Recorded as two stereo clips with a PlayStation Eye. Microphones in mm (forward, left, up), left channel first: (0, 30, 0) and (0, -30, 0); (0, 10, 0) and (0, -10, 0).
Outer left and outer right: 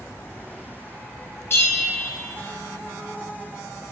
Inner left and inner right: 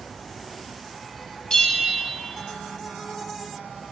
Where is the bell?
45° left (ahead or behind), 1.4 m.